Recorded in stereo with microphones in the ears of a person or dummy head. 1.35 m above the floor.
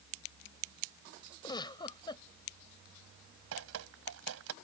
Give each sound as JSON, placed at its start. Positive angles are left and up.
{"t": 1.4, "sound": "a giggle", "side_deg": 20}
{"t": 3.5, "sound": "dripping", "side_deg": -70}